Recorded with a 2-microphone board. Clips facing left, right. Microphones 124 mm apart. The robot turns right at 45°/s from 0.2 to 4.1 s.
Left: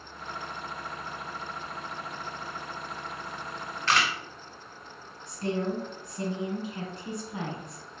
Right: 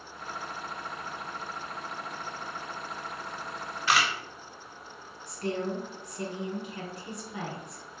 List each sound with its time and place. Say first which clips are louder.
3.9 s a camera shutter: even; 10° right (ahead or behind), 0.7 m; by 4.1 s 5° right (ahead or behind), 0.7 m
5.3 s a woman speaking: left 2 dB; 25° left (ahead or behind), 1.4 m